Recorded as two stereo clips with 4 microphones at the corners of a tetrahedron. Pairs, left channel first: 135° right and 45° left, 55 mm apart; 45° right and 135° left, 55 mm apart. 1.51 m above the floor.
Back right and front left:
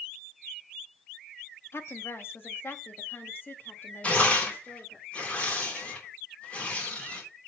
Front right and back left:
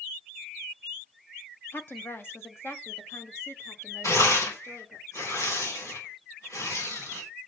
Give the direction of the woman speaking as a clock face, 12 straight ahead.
3 o'clock.